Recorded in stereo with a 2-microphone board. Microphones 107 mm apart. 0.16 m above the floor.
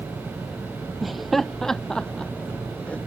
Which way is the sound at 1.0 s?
Centre (ahead or behind).